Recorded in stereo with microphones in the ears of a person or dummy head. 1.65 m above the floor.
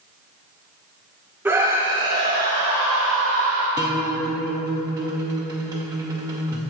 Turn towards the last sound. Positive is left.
turn(degrees=-10)  # may be behind; listen again after turning